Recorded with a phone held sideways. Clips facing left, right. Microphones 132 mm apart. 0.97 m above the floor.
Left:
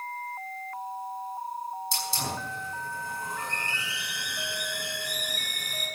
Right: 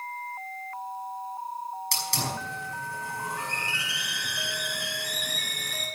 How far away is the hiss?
About 5.5 m.